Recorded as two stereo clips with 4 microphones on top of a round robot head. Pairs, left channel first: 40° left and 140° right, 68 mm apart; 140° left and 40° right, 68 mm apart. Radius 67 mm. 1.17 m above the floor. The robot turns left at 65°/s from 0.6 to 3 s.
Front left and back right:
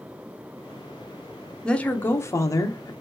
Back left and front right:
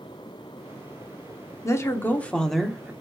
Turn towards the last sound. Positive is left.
turn(degrees=25)